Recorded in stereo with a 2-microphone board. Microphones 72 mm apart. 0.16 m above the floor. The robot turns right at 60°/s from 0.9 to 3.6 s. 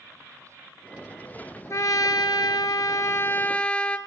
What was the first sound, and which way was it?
A trumpet, 50° left.